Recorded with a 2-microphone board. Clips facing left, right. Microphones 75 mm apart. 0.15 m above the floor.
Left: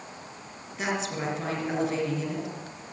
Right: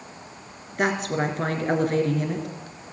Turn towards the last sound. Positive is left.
turn(degrees=-50)  # may be behind; listen again after turning